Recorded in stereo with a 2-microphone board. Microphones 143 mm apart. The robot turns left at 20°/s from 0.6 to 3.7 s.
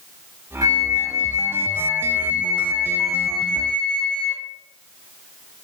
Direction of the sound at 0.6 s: 125° right.